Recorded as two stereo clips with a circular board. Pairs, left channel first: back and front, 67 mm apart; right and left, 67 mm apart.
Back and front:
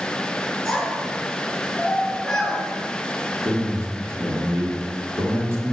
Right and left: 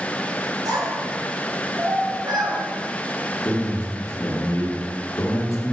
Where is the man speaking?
50° right, 1.8 m.